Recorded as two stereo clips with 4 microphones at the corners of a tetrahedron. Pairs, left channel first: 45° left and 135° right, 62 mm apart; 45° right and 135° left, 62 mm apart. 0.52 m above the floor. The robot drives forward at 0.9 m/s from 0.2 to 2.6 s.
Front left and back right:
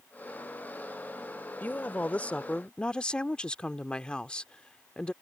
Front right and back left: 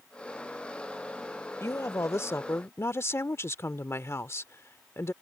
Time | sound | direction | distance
1.6 | a woman speaking | 15° right | ?